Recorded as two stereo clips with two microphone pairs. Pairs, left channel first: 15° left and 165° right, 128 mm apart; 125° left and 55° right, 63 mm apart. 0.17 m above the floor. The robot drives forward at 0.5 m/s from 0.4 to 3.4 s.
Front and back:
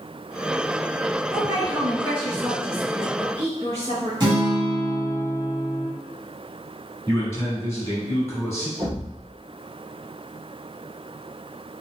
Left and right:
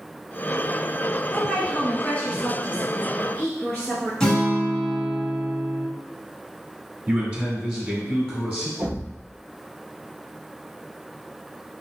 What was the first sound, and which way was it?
A woman speaking, straight behind.